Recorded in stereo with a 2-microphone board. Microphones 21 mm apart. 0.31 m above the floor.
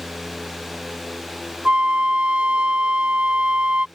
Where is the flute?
70° right (ahead or behind).